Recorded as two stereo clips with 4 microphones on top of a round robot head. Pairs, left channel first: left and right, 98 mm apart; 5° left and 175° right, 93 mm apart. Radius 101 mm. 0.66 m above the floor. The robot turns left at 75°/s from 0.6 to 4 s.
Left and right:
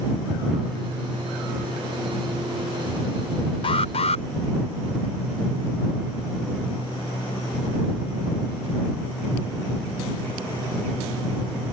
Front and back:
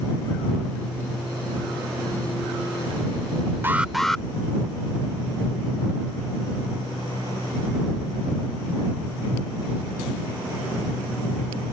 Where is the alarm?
120° left; by 4.2 s 95° left.